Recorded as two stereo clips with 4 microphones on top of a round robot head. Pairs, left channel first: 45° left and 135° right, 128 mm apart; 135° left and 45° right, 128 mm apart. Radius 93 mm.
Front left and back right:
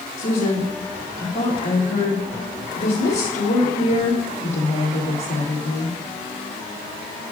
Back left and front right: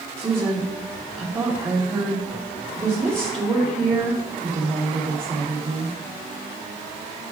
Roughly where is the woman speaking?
Ahead.